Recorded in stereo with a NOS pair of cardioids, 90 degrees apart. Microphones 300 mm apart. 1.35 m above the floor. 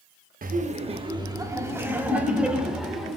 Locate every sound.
0.4 s laughter: 30° right, 1.1 m; by 3.2 s straight ahead, 3 m